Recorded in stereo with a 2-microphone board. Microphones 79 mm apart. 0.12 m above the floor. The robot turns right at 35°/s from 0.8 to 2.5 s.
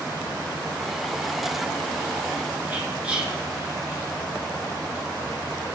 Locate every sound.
2.7 s whispering: 15° right (ahead or behind), 1.6 m